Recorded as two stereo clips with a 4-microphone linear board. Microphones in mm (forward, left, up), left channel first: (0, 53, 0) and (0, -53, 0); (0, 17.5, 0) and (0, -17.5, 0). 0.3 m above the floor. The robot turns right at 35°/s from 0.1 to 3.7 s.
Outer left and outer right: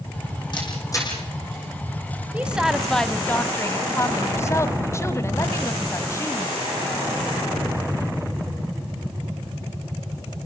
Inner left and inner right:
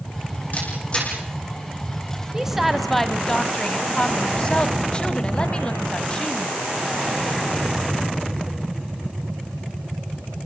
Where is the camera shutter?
45° left (ahead or behind), 9 m; by 1.1 s 25° left (ahead or behind), 9 m.